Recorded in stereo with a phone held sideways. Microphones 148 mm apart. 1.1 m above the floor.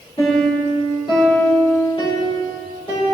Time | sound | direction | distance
0.2 | a piano | 35° left (ahead or behind) | 2.5 m